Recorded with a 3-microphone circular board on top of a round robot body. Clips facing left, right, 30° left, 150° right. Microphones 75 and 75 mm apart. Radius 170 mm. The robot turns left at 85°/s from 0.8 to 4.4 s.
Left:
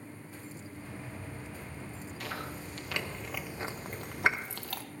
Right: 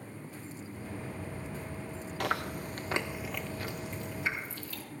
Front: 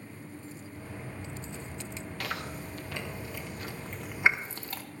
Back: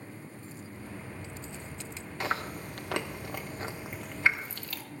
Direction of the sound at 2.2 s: 85° right.